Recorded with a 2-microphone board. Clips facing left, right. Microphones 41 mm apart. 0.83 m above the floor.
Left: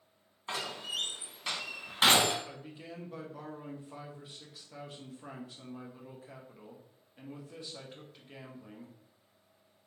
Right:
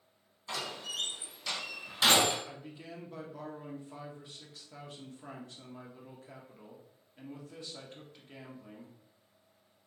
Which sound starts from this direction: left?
A door slam, at 0.5 s.